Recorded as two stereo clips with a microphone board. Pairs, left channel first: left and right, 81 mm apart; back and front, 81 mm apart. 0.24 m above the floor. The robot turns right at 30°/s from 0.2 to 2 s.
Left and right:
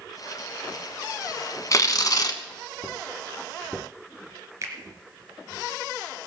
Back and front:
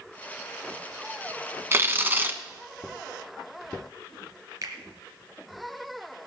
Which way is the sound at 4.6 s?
45° right.